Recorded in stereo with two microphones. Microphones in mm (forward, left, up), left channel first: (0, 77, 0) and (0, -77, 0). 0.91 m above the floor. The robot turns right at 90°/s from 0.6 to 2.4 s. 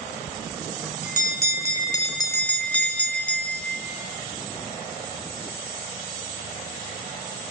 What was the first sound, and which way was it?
A bell, 10° left.